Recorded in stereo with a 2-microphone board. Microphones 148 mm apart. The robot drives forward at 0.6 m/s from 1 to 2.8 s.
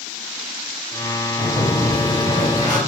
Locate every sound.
1.4 s a sliding door: 60° left (ahead or behind), 1.5 m; by 2.8 s 55° left (ahead or behind), 1.6 m